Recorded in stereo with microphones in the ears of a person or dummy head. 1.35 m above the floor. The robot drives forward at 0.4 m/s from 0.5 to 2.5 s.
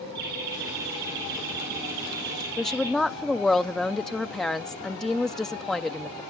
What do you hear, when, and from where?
0.1 s laughter: 70° right (ahead or behind), 5 m; by 2.9 s 60° right (ahead or behind), 5 m
2.6 s a woman speaking: 10° left (ahead or behind), 0.5 m